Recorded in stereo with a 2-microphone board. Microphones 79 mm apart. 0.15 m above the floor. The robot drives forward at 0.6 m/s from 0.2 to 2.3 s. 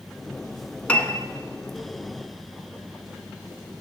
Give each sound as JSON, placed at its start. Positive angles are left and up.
{"t": 0.9, "sound": "a piano", "side_deg": 15, "distance_m": 0.6}